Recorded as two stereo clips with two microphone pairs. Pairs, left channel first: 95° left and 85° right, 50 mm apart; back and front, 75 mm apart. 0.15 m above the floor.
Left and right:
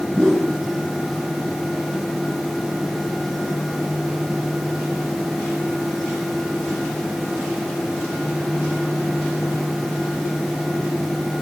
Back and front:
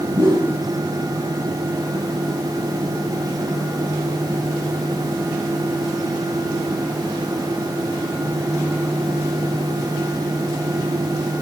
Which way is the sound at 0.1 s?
15° left.